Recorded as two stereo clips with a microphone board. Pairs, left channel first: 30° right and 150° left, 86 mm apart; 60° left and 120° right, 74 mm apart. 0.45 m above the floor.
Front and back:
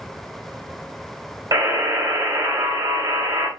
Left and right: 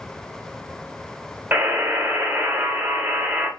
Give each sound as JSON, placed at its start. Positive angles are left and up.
{"t": 1.5, "sound": "a buzzer", "azimuth_deg": 175, "distance_m": 1.1}